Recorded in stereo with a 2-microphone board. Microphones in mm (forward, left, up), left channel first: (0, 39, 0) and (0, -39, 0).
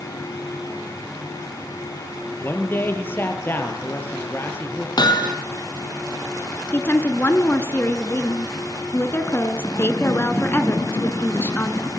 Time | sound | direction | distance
2.4 | a man speaking | 25° left (ahead or behind) | 4.5 m
5.0 | hammering | 65° left (ahead or behind) | 3 m
6.7 | a woman speaking | 30° left (ahead or behind) | 2 m